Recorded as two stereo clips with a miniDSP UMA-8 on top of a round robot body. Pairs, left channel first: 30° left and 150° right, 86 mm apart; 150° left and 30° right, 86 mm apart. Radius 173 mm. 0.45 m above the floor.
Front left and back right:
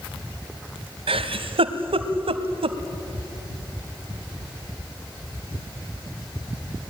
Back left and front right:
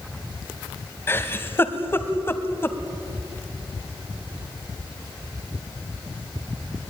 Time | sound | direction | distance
1.1 | a giggle | 145° right | 1.1 m